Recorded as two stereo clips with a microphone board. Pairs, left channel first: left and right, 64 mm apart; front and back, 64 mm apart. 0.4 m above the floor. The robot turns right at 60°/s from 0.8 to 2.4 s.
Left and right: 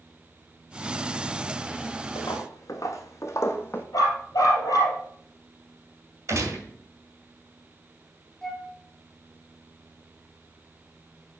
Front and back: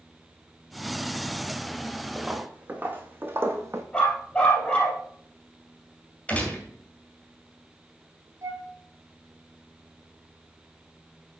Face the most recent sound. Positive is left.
turn(degrees=-175)